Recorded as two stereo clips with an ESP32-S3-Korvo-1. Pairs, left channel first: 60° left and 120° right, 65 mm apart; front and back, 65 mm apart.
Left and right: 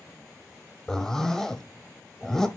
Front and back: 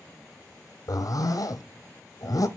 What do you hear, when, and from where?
0.9 s a zipper: 25° right, 0.8 m